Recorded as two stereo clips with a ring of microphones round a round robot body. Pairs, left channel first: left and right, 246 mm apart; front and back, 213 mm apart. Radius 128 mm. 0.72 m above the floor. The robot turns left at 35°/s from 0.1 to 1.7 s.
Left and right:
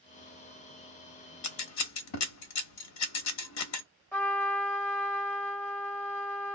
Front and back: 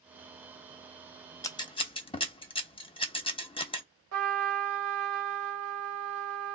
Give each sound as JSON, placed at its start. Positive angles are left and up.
{"t": 1.4, "sound": "scissors", "azimuth_deg": 75, "distance_m": 0.9}
{"t": 4.1, "sound": "a trumpet", "azimuth_deg": 175, "distance_m": 1.5}